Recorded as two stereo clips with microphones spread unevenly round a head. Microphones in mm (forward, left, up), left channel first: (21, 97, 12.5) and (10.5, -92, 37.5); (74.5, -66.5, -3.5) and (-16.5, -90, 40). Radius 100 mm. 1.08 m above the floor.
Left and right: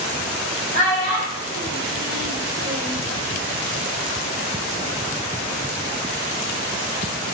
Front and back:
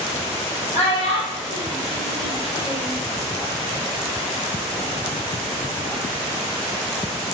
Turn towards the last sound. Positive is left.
turn(degrees=-5)